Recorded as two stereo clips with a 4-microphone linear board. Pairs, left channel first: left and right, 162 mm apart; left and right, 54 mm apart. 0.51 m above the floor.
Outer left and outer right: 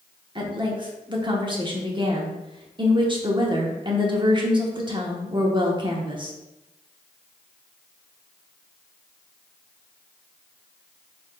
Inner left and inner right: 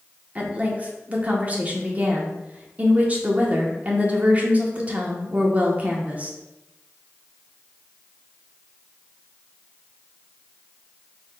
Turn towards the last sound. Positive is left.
turn(degrees=-30)  # may be behind; listen again after turning